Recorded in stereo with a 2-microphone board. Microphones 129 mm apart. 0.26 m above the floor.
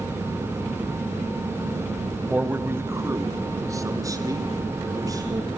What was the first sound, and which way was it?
A man speaking, 10° right (ahead or behind).